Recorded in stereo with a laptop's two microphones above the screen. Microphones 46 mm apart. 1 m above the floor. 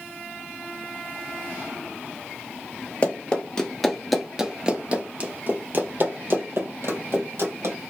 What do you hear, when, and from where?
3.0 s running footsteps: 30° left (ahead or behind), 1.1 m; by 7.8 s 65° right (ahead or behind), 2 m